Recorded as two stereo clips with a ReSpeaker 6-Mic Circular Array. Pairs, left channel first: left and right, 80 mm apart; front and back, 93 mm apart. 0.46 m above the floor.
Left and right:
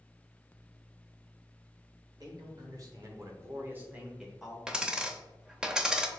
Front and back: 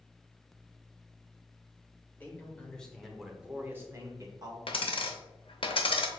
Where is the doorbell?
No doorbell in this recording.